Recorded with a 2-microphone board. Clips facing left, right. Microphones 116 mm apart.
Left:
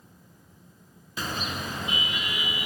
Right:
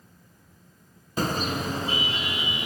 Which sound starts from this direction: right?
A car horn, at 1.2 s.